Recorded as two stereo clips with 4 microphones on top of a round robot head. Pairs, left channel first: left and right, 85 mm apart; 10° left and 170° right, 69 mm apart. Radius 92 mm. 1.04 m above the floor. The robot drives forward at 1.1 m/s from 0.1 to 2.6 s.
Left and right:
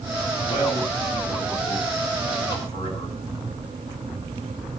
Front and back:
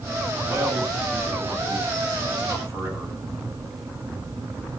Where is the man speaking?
135° left, 8 m; by 3.2 s 145° left, 9.5 m.